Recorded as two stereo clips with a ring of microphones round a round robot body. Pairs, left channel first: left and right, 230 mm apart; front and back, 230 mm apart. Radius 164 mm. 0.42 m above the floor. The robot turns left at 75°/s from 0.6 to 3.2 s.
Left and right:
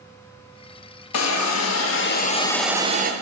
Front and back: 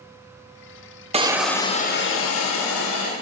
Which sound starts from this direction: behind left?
A hiss, at 1.1 s.